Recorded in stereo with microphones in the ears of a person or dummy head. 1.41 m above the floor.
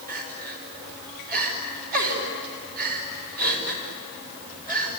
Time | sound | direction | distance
0.1 | crying | 50° right (ahead or behind) | 4.5 m